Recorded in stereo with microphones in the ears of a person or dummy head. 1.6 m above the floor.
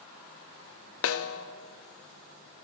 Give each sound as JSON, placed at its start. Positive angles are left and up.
{"t": 1.0, "sound": "a snare drum", "side_deg": 70, "distance_m": 0.6}